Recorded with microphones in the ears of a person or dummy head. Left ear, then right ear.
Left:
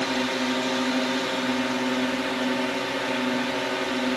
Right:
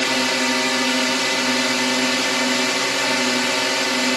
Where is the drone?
65° right (ahead or behind).